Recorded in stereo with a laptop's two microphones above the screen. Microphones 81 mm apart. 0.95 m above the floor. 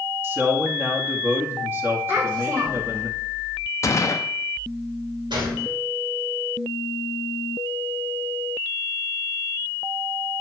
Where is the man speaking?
30° right (ahead or behind), 1.9 m.